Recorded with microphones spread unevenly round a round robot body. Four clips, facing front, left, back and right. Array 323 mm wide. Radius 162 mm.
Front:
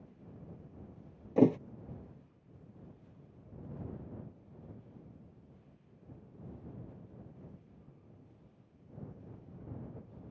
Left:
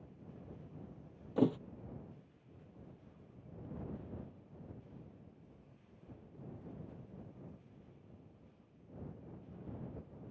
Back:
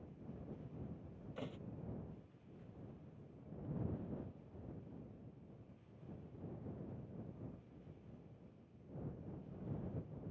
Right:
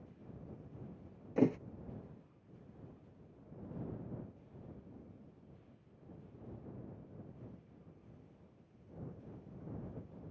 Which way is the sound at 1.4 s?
Straight ahead.